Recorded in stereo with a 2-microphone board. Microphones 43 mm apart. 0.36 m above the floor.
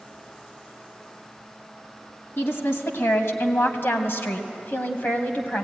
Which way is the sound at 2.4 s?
65° left (ahead or behind).